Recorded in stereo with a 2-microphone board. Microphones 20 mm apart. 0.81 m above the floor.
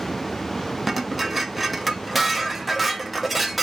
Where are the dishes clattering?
10° right (ahead or behind), 0.6 m.